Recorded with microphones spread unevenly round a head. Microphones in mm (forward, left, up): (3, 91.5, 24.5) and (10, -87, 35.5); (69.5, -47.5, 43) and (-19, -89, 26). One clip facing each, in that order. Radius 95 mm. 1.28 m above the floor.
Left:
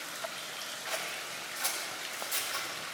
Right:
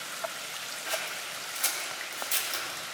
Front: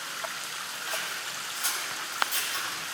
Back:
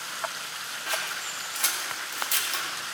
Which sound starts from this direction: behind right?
Scissors, at 0.9 s.